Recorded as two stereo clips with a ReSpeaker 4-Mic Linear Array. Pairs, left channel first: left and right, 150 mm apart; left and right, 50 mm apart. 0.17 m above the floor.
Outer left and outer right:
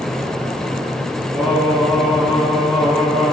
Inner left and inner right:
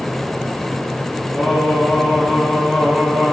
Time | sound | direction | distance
1.3 | singing | centre (ahead or behind) | 1.9 m